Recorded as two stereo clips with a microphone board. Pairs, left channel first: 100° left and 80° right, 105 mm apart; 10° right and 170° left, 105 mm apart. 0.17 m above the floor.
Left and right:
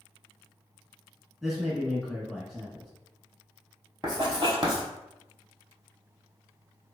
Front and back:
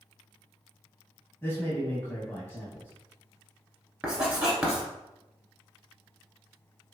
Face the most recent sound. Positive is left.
turn(degrees=-115)